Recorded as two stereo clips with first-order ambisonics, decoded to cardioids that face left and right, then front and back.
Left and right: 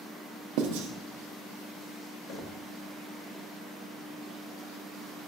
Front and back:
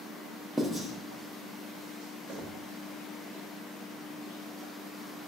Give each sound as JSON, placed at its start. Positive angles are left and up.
{"t": 0.6, "sound": "writing", "azimuth_deg": -90, "distance_m": 0.6}
{"t": 2.3, "sound": "knocking", "azimuth_deg": 110, "distance_m": 0.5}